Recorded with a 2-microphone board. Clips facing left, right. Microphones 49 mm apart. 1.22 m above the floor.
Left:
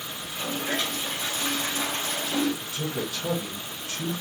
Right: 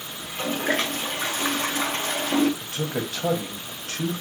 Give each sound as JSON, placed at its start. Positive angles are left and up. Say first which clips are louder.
{"t": 0.2, "sound": "a toilet flushing", "louder": "right 5 dB", "side_deg": -50, "distance_m": 0.6}
{"t": 2.6, "sound": "a man speaking", "louder": "right 2 dB", "side_deg": -70, "distance_m": 0.9}